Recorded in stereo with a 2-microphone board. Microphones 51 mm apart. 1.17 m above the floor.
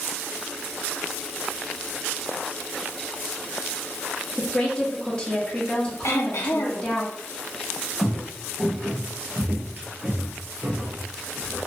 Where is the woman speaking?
20° left (ahead or behind), 1.2 m.